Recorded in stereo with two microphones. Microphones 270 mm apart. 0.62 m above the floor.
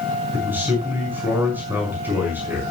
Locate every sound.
0.3 s a man speaking: 5° right (ahead or behind), 6 m